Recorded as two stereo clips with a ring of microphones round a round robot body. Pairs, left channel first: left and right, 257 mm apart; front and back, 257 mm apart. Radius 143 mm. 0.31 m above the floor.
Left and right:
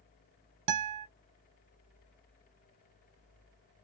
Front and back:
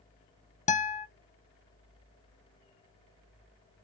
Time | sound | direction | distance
0.7 | a guitar | 65° right | 0.6 m